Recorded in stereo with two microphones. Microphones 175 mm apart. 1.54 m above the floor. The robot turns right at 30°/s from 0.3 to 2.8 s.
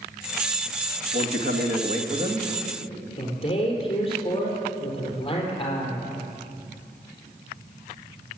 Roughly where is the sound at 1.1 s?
Right.